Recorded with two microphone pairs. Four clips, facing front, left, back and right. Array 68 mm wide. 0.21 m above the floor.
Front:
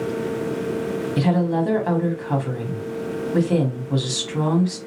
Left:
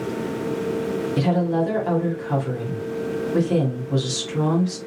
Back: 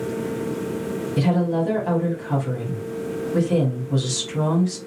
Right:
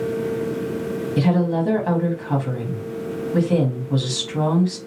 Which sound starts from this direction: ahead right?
A woman speaking, at 1.2 s.